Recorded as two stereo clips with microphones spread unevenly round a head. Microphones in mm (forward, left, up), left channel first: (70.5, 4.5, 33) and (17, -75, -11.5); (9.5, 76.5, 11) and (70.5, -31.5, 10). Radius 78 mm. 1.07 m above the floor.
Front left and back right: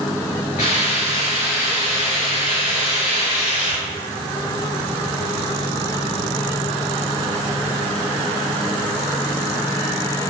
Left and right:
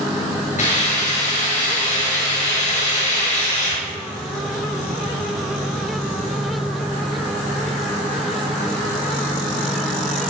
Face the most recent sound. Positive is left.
turn(degrees=105)